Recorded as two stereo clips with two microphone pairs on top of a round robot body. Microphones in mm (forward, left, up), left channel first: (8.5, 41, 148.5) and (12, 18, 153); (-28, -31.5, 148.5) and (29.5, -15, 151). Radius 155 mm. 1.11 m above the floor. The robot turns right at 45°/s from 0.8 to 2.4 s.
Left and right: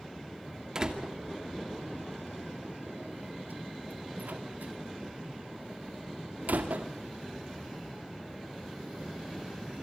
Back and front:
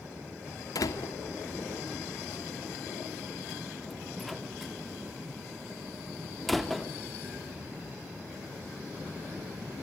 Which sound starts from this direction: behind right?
A door slam, at 0.8 s.